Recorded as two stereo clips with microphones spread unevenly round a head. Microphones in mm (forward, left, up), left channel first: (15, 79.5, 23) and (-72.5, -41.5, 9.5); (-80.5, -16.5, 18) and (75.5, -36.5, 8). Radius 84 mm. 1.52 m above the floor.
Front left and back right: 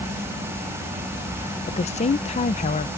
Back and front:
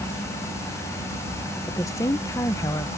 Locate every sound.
1.7 s a woman speaking: 100° left